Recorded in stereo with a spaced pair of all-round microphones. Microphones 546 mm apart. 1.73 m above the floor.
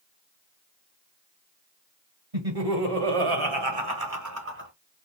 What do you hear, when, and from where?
2.3 s laughter: 85° right, 1.6 m; by 4.7 s 20° right (ahead or behind), 1.3 m